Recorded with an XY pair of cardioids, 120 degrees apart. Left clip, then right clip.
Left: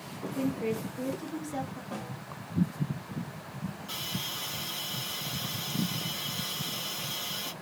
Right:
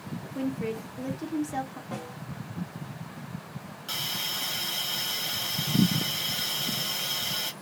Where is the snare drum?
20° right, 1.7 m.